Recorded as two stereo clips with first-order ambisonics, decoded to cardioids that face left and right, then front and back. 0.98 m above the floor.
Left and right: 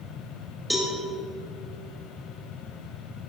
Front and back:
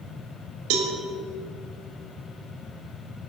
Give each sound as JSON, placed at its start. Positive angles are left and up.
{"t": 0.7, "sound": "a cowbell", "azimuth_deg": 180, "distance_m": 1.7}